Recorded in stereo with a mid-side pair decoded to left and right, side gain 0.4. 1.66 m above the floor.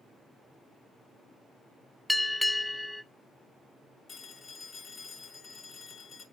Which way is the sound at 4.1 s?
65° left.